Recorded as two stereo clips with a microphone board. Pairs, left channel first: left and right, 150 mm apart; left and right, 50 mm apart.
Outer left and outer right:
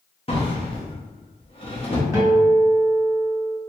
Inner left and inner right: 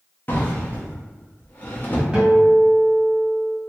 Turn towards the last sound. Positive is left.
turn(degrees=-20)  # may be behind; listen again after turning